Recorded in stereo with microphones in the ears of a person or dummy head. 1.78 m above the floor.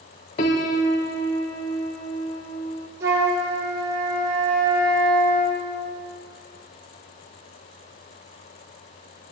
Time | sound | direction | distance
0.4 | a piano | 25° left (ahead or behind) | 0.8 m
3.0 | a flute | 20° right (ahead or behind) | 4.5 m